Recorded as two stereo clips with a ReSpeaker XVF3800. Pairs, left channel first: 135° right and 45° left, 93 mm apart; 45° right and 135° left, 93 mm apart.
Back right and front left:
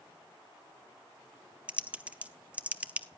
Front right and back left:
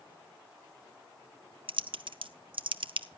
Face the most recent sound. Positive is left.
turn(degrees=120)